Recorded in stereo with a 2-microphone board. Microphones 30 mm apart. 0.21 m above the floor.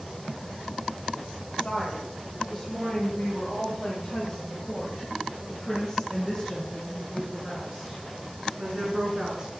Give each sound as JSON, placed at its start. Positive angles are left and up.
{"t": 1.6, "sound": "a woman speaking", "side_deg": 20, "distance_m": 5.5}